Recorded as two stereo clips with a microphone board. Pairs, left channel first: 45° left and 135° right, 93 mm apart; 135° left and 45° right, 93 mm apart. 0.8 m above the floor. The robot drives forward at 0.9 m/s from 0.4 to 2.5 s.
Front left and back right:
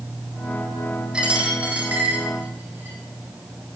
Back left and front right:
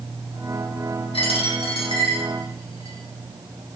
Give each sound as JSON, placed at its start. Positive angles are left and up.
{"t": 1.1, "sound": "a dropped coin", "azimuth_deg": 145, "distance_m": 4.5}